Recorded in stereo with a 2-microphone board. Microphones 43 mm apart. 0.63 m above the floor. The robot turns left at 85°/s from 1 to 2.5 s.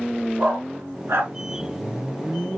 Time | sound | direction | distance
0.4 | a dog barking | 85° right | 3.5 m